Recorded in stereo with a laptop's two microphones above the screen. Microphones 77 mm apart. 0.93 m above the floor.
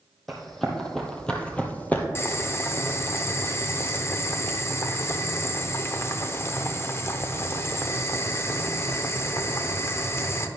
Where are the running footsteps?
Centre (ahead or behind), 1.4 m; by 2.0 s 20° left (ahead or behind), 0.9 m.